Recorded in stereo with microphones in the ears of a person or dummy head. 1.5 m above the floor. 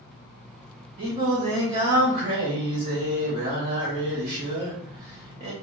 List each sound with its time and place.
1.0 s singing: 35° right (ahead or behind), 1.0 m